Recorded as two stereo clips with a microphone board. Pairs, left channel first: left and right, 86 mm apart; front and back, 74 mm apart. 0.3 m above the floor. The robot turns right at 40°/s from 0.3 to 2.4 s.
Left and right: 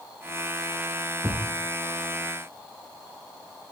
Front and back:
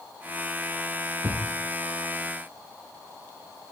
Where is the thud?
160° right, 6.5 m; by 1.5 s 150° right, 6.5 m.